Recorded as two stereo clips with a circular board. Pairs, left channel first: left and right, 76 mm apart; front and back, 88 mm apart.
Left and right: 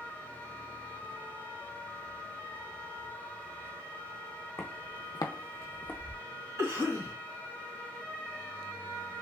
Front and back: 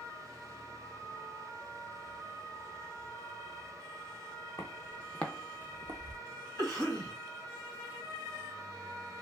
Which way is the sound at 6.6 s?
55° right.